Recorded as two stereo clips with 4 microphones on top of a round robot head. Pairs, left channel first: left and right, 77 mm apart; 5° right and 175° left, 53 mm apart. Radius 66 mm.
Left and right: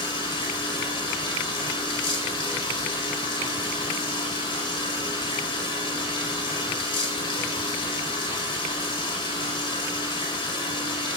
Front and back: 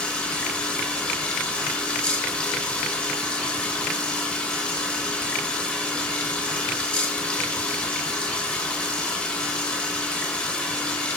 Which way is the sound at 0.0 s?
60° left.